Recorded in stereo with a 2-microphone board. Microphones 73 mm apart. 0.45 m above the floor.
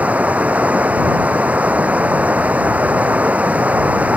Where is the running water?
20° right (ahead or behind).